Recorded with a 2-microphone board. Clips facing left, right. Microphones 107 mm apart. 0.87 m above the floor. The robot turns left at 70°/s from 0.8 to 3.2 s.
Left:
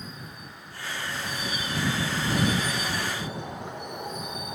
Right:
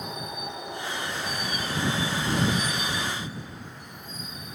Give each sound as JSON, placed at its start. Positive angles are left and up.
{"t": 0.0, "sound": "a vehicle", "azimuth_deg": -80}